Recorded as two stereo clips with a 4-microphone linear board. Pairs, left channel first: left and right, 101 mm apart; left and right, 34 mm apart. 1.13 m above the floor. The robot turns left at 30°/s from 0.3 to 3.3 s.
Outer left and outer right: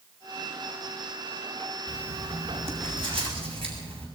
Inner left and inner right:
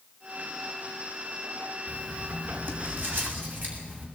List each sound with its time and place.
1.9 s writing: 65° right, 7.5 m; by 4.1 s 105° right, 7.5 m